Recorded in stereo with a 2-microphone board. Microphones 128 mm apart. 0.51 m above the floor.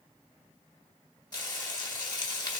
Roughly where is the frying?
Left.